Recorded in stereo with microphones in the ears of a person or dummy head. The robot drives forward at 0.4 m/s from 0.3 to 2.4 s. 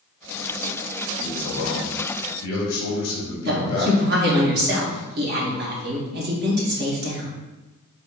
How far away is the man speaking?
About 1.1 m.